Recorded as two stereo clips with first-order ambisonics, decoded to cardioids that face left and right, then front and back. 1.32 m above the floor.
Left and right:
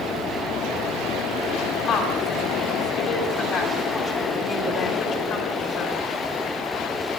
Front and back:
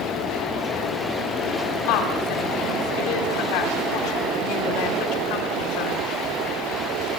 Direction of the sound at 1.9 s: 15° left.